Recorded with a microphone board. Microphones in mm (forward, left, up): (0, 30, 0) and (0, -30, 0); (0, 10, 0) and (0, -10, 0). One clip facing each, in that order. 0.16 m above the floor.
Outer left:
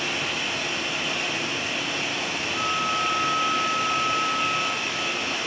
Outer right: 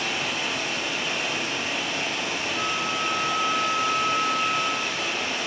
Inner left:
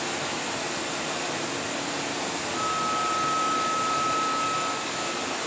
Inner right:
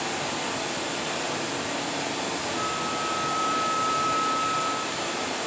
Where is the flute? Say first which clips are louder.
Outer left 4 dB, inner left 5 dB; 10° right (ahead or behind), 1.2 m.